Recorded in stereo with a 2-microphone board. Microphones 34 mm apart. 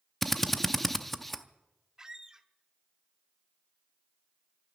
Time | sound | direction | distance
0.2 | a drill | 5° left (ahead or behind) | 0.6 m
2.0 | a squeak | 15° right (ahead or behind) | 0.6 m